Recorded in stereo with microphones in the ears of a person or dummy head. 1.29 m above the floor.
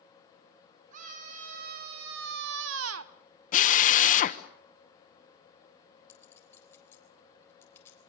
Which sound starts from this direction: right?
A scream, at 0.9 s.